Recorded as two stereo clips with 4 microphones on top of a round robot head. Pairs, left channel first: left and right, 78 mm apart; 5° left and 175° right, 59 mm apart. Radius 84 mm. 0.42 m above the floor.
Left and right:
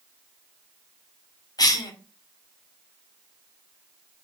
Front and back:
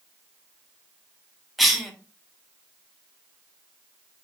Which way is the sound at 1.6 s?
95° left.